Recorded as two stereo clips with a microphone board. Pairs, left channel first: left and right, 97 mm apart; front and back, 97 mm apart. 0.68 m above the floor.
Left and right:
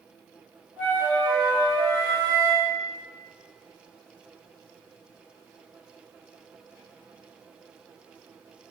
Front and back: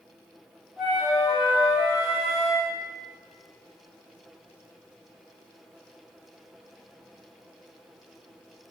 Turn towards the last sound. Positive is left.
turn(degrees=-85)